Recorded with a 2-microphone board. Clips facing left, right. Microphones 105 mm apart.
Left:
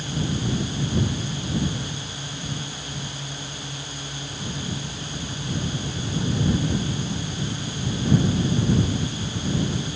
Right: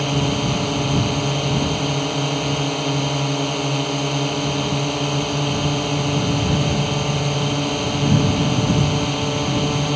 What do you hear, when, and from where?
0.0 s a drone: 60° right (ahead or behind)